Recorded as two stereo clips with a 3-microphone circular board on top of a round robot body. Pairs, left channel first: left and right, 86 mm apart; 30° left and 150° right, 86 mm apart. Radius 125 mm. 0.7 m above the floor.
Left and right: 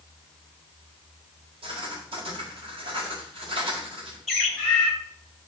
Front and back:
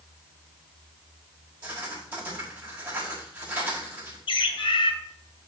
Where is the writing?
80° right, 6 m.